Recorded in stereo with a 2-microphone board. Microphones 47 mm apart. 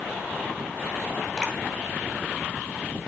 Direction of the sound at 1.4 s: Centre (ahead or behind).